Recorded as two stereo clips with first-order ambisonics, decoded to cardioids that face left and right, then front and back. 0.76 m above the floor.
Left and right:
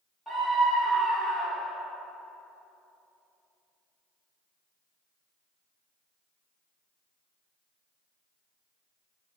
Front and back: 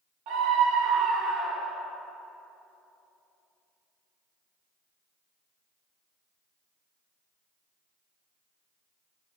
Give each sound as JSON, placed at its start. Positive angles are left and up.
{"t": 0.3, "sound": "a scream", "azimuth_deg": 170, "distance_m": 1.1}